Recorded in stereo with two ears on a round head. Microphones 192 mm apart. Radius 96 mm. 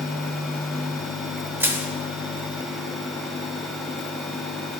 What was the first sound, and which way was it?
Crushing, 10° right (ahead or behind).